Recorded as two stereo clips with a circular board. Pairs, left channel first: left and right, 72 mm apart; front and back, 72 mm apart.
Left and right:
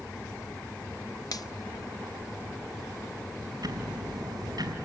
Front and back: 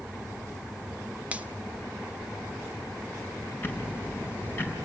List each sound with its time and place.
1.3 s a finger snap: 110° left, 1.1 m
3.6 s ticking: 60° right, 4.5 m